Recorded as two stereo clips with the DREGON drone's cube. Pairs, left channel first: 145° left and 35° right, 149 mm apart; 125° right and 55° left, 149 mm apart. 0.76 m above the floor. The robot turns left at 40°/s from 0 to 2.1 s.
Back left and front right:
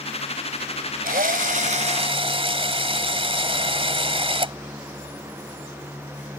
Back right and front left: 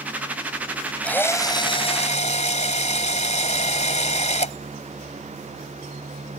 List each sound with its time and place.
1.0 s a drill: 45° right; by 4.5 s 85° right